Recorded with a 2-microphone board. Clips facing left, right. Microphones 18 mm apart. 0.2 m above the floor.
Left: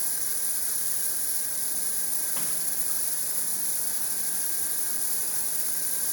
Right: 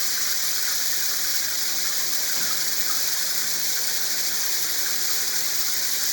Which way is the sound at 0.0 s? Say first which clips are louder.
Right 10 dB; 60° right (ahead or behind).